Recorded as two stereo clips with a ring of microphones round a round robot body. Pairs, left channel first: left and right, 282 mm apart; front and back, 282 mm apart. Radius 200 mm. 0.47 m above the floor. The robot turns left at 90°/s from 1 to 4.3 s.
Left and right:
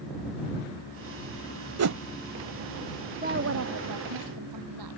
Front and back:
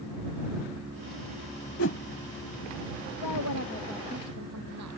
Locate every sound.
1.8 s a whoosh: 55° right; by 2.0 s 70° right
3.2 s a woman speaking: 25° right; by 5.0 s 125° right